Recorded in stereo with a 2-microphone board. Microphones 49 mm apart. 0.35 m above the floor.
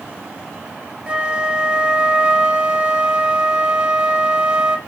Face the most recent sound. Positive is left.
turn(degrees=-20)  # may be behind; listen again after turning